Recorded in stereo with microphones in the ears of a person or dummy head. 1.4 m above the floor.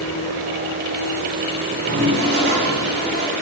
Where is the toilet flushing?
60° right (ahead or behind), 6 m.